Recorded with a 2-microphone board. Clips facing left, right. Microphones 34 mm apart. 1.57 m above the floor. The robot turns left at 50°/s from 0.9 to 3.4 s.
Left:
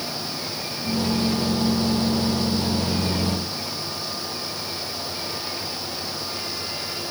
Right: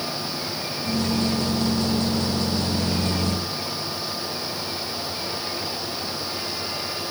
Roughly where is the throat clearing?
No throat clearing in this recording.